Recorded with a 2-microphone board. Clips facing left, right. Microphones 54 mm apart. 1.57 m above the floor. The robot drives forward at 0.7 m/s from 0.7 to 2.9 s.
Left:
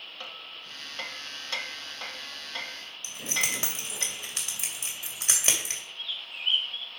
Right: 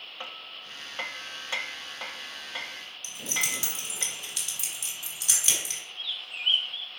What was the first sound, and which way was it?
Hammering, 20° right (ahead or behind).